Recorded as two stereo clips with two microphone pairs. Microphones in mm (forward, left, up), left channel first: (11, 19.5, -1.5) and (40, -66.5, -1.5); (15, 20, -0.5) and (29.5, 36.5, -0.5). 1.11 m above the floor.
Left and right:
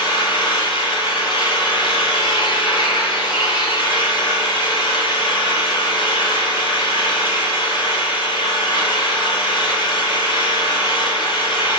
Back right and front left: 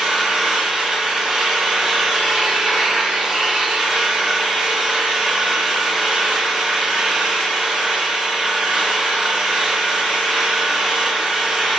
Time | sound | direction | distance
0.0 | an engine running | 100° left | 3 m